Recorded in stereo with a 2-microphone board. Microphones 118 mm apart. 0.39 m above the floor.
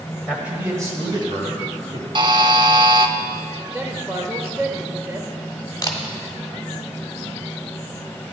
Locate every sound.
0.3 s a man speaking: 10° right (ahead or behind), 2 m; by 2.0 s 50° right (ahead or behind), 3.5 m
2.1 s a buzzer: 40° right (ahead or behind), 0.6 m
3.7 s a man speaking: 20° right (ahead or behind), 1.4 m
5.8 s a camera shutter: 30° left (ahead or behind), 1.5 m